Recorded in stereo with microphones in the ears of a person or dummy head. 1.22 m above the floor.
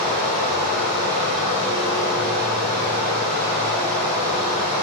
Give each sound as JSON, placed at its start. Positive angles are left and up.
{"t": 0.0, "sound": "running water", "side_deg": -25, "distance_m": 1.7}